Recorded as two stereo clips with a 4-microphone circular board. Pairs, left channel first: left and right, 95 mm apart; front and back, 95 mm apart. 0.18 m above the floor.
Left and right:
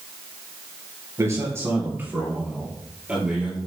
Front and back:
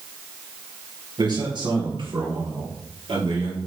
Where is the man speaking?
145° right, 3 m; by 3.6 s 170° right, 4 m.